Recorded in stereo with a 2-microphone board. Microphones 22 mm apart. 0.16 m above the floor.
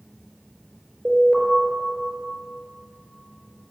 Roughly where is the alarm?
Centre.